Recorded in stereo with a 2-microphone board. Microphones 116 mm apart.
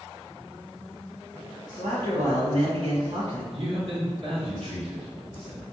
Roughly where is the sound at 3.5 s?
Right.